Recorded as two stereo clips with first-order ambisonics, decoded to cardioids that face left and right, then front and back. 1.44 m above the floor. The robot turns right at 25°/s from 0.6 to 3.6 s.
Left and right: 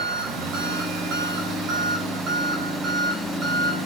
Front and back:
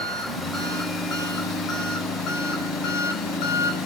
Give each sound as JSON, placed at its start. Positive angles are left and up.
{"t": 0.0, "sound": "an engine running", "azimuth_deg": -85, "distance_m": 4.5}